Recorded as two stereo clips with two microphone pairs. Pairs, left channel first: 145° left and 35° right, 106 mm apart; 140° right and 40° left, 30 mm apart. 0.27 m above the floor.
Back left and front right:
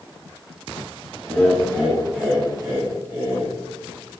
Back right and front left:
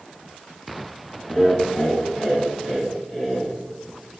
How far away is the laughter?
About 1.6 m.